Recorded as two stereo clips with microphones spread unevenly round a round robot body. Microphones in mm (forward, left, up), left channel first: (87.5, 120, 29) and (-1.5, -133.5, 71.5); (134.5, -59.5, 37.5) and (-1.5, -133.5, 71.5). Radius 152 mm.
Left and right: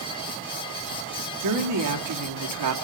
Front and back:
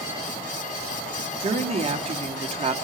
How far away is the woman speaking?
About 2 m.